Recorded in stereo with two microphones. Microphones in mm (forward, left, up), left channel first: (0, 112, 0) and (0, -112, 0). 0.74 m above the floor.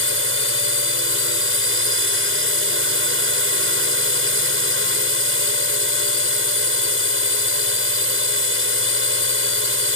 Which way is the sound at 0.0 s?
70° right (ahead or behind).